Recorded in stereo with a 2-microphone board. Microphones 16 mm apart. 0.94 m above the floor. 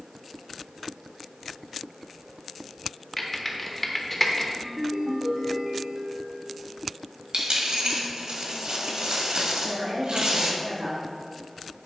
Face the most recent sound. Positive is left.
turn(degrees=-70)  # may be behind; listen again after turning